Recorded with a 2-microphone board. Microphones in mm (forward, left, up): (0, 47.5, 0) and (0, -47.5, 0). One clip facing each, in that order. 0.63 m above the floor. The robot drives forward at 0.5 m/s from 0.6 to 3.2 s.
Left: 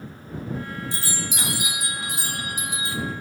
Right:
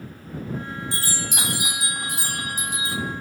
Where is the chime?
65° right (ahead or behind), 1.6 m; by 3.0 s 40° right (ahead or behind), 2.5 m.